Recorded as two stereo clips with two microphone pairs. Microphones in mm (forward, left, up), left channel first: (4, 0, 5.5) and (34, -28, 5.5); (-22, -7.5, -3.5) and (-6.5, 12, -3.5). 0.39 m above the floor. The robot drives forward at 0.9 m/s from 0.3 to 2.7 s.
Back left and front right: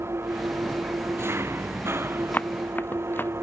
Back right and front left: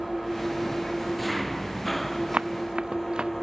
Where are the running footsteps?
95° left; by 3.3 s 105° left.